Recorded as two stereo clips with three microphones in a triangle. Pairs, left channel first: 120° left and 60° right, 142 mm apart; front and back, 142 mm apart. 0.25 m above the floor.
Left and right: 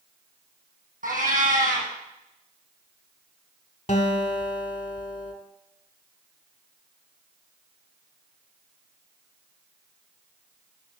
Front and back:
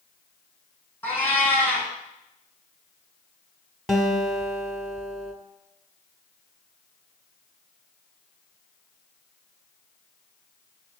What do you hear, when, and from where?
1.0 s a cat meowing: 75° right, 3 m
3.9 s a guitar: 90° left, 1.4 m